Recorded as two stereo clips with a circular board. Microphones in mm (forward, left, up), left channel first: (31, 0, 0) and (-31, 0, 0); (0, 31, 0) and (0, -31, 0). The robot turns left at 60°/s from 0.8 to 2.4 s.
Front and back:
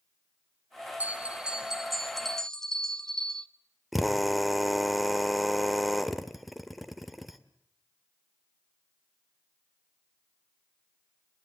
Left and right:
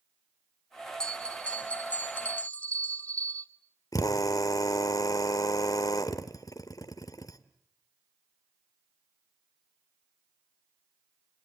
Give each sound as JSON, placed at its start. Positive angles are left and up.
{"t": 1.0, "sound": "a bell", "azimuth_deg": 150, "distance_m": 1.4}
{"t": 3.9, "sound": "a drill", "azimuth_deg": 90, "distance_m": 1.5}